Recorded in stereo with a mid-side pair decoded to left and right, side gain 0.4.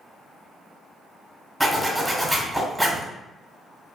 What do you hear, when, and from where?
1.6 s a zipper: straight ahead, 1.2 m